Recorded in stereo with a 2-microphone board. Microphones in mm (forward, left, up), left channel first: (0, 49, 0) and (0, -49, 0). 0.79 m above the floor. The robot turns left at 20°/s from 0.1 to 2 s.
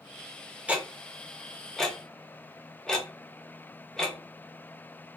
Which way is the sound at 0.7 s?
15° right (ahead or behind).